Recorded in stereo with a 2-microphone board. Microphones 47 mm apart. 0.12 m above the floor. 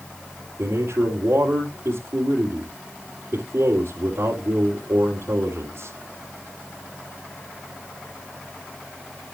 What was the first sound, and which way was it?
A man speaking, 60° right (ahead or behind).